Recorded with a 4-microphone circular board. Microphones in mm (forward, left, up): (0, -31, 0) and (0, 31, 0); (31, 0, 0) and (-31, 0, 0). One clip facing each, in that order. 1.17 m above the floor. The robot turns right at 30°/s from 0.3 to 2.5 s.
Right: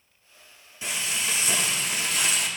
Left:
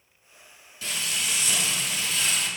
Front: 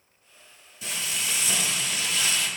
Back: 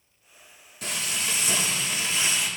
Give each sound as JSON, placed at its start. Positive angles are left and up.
{"t": 0.8, "sound": "frying", "azimuth_deg": -160, "distance_m": 1.5}